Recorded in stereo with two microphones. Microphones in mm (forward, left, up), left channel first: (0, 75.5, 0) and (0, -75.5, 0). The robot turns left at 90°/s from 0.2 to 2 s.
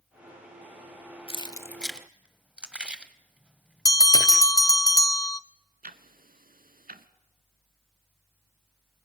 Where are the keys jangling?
40° left (ahead or behind), 0.8 m; by 4.5 s 5° right (ahead or behind), 0.8 m.